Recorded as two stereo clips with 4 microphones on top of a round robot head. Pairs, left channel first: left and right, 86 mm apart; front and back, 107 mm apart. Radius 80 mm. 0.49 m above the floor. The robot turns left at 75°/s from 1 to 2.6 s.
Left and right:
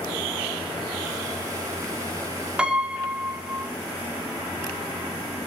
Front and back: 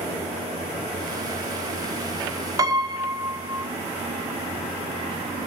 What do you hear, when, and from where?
2.6 s a piano: 160° right, 1.4 m